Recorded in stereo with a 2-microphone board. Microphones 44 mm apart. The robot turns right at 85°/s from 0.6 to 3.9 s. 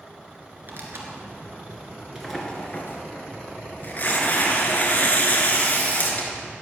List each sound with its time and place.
0.7 s tearing paper: 45° right (ahead or behind), 1.9 m; by 6.5 s 40° left (ahead or behind), 1.9 m